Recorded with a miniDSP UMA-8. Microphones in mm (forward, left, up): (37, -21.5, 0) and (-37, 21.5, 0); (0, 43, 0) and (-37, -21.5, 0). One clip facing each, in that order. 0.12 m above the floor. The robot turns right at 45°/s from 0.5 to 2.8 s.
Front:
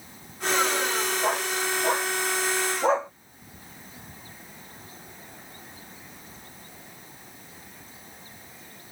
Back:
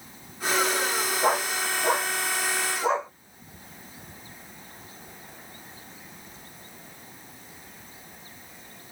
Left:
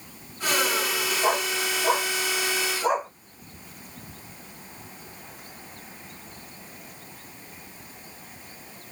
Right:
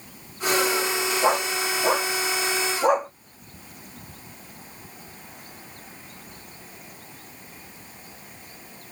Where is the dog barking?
155° right, 1.7 m; by 3.1 s 85° right, 1.7 m.